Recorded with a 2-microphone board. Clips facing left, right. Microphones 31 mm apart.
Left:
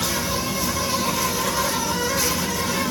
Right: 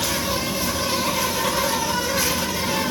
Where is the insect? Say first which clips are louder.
Right 1 dB; 35° right (ahead or behind), 1.6 m.